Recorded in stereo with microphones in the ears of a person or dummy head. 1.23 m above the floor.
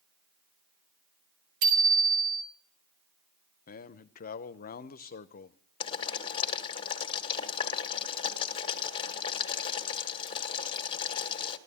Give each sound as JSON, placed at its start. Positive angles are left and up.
{"t": 1.6, "sound": "a bicycle bell", "side_deg": -55, "distance_m": 2.5}
{"t": 3.7, "sound": "a man speaking", "side_deg": 45, "distance_m": 0.7}
{"t": 5.8, "sound": "boiling", "side_deg": 30, "distance_m": 1.7}